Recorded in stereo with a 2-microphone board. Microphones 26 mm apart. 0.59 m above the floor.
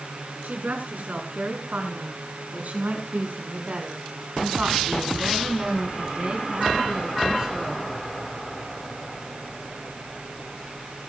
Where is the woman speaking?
85° right, 6 m; by 7.9 s 25° right (ahead or behind), 5 m.